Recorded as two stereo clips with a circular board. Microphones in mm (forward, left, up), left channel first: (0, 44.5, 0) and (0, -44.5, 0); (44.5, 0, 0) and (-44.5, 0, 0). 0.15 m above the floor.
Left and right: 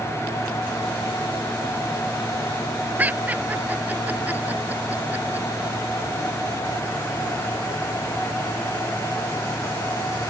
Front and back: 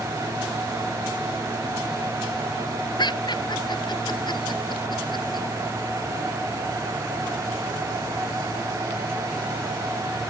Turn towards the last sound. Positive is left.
turn(degrees=-20)